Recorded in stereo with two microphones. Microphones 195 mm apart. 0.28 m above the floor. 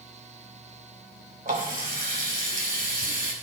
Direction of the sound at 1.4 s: 45° right (ahead or behind).